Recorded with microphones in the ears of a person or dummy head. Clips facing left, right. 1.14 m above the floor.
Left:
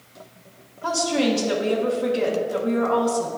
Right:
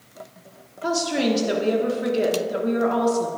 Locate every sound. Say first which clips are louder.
0.8 s a woman speaking: even; 20° right (ahead or behind), 1.3 m